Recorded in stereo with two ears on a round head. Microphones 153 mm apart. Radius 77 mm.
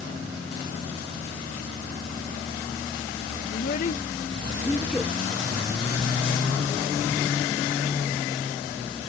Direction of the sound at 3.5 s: 60° left (ahead or behind).